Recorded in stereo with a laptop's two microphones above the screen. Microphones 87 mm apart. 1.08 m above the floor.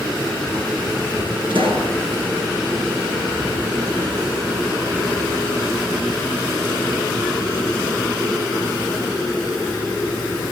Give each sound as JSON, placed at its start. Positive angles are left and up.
{"t": 1.5, "sound": "a pop", "side_deg": -65, "distance_m": 8.0}